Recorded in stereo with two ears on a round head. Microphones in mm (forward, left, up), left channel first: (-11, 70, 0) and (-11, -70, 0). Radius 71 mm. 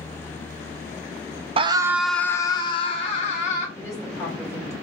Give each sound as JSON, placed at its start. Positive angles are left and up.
{"t": 1.6, "sound": "a scream", "side_deg": -35, "distance_m": 0.5}
{"t": 3.8, "sound": "a woman speaking", "side_deg": 25, "distance_m": 2.5}